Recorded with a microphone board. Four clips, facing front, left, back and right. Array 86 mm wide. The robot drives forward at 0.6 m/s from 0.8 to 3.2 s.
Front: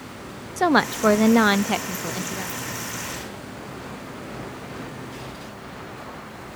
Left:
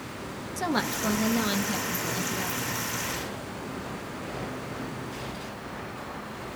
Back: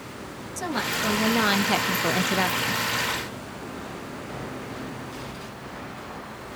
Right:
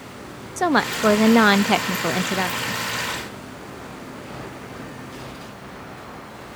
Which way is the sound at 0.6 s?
35° right.